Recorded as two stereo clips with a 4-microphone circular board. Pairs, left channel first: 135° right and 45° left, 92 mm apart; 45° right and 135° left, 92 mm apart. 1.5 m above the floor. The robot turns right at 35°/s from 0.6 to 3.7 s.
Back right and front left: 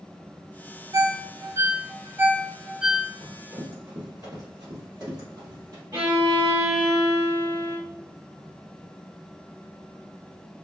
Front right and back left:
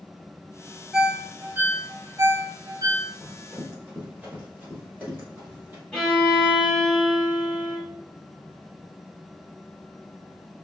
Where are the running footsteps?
45° left, 1.6 m; by 5.8 s 70° left, 2.5 m.